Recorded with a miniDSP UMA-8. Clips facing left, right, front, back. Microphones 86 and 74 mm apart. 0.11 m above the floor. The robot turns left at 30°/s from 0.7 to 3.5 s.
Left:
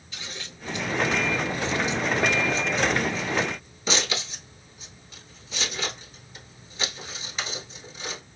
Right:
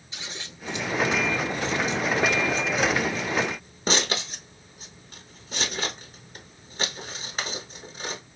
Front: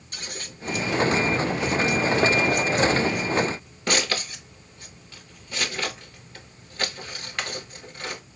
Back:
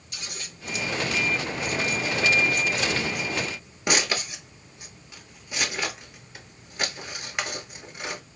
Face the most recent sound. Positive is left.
turn(degrees=-110)